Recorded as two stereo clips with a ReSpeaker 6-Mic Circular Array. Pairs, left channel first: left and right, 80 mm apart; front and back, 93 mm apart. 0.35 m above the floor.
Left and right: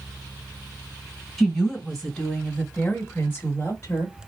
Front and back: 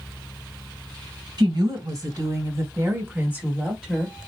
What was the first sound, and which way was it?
A woman speaking, 175° right.